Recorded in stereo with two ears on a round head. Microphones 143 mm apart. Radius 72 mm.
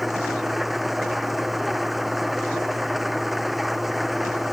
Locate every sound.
0.0 s an engine running: centre (ahead or behind)